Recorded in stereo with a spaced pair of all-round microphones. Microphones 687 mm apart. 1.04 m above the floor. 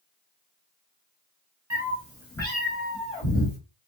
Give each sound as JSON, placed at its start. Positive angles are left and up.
{"t": 1.7, "sound": "a cat meowing", "side_deg": -25, "distance_m": 1.1}